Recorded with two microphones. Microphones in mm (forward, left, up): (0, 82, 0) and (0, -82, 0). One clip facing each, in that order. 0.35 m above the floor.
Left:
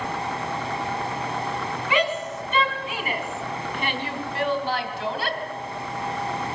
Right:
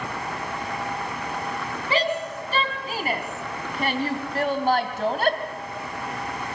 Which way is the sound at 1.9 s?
35° right (ahead or behind).